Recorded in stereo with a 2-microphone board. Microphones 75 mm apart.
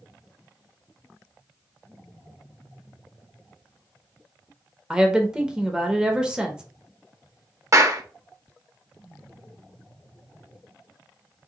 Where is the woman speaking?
10° right (ahead or behind), 0.7 m.